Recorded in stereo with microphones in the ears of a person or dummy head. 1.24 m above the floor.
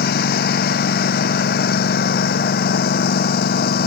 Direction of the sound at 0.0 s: 55° left (ahead or behind).